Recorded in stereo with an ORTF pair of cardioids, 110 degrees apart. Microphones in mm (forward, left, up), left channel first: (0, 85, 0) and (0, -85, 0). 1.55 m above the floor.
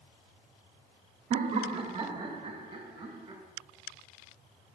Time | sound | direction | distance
1.3 | laughter | 40° right | 0.8 m